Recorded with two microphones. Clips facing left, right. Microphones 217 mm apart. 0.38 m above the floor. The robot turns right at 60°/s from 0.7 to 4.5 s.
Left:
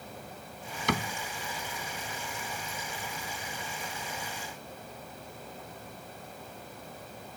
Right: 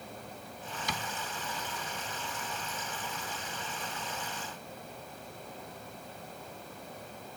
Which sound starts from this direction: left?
A cupboard door, at 0.9 s.